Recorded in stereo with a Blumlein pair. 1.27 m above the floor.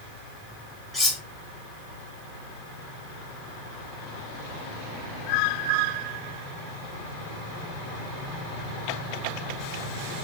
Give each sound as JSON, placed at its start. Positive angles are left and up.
{"t": 0.9, "sound": "cutlery clinking", "azimuth_deg": 5, "distance_m": 2.0}